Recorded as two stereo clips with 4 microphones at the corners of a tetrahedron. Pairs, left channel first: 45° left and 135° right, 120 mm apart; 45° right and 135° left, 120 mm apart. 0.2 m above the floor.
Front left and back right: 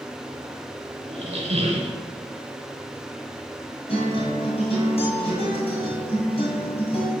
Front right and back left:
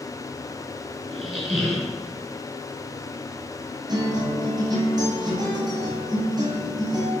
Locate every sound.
1.1 s a squeak: 135° right, 0.8 m
3.9 s a guitar: 80° left, 1.4 m